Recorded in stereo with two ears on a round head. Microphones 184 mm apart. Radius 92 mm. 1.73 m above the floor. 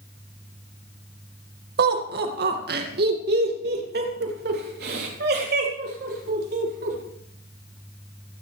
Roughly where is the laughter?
Right.